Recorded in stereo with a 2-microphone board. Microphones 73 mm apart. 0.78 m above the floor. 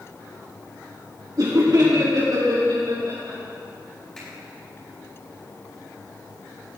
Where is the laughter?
55° right (ahead or behind), 1.8 m; by 3.4 s 60° right (ahead or behind), 3.5 m.